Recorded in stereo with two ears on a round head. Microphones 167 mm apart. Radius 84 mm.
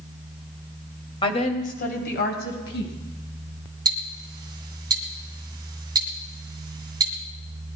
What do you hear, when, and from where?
1.2 s a woman speaking: 25° left (ahead or behind), 2 m; by 2.9 s 75° left (ahead or behind), 3.5 m
3.9 s ticking: 20° right (ahead or behind), 2.5 m